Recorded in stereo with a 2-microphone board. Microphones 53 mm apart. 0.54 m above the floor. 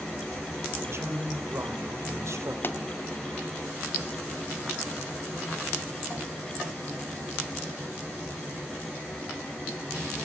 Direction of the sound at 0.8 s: 55° right (ahead or behind).